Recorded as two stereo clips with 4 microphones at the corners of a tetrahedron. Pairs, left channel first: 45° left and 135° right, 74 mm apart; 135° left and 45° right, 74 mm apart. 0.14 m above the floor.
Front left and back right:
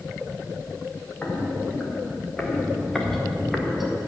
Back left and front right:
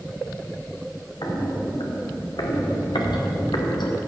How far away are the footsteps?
About 3 m.